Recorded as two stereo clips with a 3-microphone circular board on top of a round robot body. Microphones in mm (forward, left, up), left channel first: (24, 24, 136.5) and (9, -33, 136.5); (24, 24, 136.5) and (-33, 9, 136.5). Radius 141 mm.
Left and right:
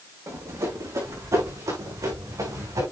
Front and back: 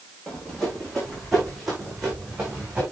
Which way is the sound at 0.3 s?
65° right.